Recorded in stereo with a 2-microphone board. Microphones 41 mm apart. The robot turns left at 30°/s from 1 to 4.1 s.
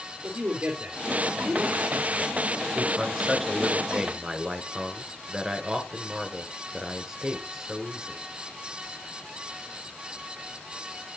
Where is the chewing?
I don't hear chewing.